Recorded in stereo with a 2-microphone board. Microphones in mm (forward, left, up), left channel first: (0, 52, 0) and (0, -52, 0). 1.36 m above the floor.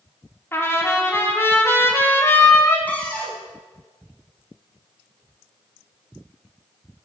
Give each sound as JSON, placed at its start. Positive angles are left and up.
{"t": 0.5, "sound": "a trumpet", "side_deg": 25, "distance_m": 3.0}
{"t": 2.9, "sound": "a cupboard door", "side_deg": 15, "distance_m": 5.0}